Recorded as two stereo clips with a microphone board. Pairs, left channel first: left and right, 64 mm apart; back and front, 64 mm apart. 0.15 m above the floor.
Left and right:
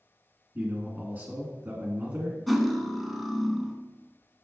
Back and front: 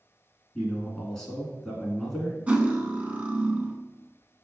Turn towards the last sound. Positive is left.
turn(degrees=-5)